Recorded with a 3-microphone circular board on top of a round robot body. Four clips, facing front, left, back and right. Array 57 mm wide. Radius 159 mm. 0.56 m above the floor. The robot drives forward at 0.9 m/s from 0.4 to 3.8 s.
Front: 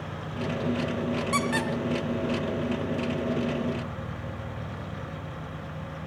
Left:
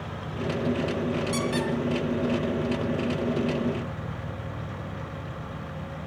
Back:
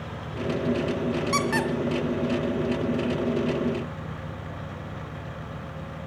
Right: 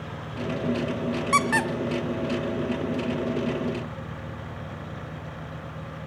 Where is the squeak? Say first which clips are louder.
Right 4 dB, back 2 dB; 95° right, 1.0 m; by 3.2 s 150° right, 2 m.